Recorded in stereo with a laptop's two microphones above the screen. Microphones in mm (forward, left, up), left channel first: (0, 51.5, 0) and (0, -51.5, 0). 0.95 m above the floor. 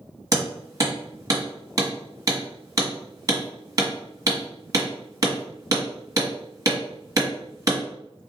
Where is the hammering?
35° right (ahead or behind), 1.4 m.